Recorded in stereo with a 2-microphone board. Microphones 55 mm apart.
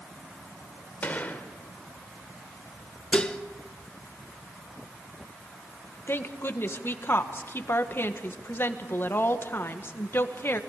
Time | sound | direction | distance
1.0 | a gunshot | 30° left (ahead or behind) | 1.7 m
3.1 | dishes clattering | 20° left (ahead or behind) | 1.0 m
6.1 | a woman speaking | 45° left (ahead or behind) | 1.5 m